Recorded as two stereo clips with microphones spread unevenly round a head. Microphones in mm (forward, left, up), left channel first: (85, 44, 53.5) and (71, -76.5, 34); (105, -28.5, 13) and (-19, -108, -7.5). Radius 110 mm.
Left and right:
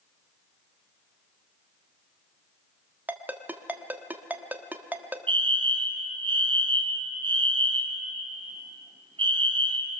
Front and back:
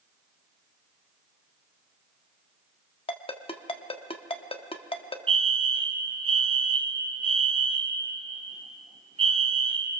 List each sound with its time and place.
3.1 s a ringtone: 20° right, 1.5 m
5.3 s a fire alarm: 115° right, 2 m